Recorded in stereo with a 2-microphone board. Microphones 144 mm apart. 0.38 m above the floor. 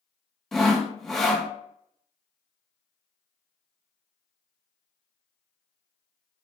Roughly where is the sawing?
Centre.